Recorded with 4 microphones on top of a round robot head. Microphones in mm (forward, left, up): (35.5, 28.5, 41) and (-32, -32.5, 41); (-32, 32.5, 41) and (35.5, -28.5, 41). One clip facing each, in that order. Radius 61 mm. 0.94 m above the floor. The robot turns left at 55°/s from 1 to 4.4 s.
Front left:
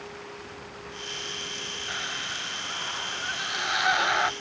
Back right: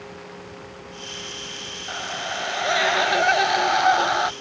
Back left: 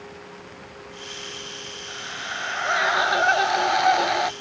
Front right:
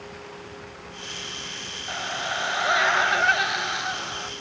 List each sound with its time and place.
1.9 s a scream: 80° right; by 4.3 s 145° left